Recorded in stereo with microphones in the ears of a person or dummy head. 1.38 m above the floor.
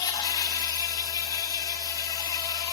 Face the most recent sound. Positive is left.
turn(degrees=20)  # may be behind; listen again after turning